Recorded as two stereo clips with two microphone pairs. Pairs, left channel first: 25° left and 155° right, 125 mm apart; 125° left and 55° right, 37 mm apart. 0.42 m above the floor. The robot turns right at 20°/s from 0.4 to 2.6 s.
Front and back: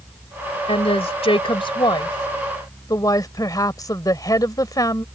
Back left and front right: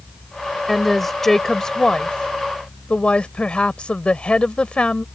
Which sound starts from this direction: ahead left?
A woman speaking, at 0.7 s.